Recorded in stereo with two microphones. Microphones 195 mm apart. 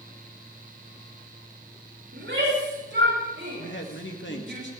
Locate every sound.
2.1 s a shout: 80° right, 5.5 m; by 4.6 s 65° right (ahead or behind), 7.5 m
3.6 s a man speaking: 75° left (ahead or behind), 2 m